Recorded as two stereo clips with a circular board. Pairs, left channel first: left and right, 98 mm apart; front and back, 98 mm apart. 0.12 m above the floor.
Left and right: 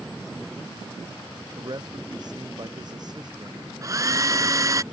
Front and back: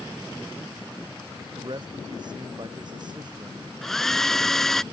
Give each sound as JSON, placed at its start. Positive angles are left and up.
{"t": 1.6, "sound": "a man speaking", "azimuth_deg": -135}
{"t": 3.8, "sound": "a hair dryer", "azimuth_deg": -85}